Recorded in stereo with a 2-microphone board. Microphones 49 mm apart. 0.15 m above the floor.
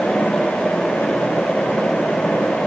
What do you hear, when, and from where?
Only background noise.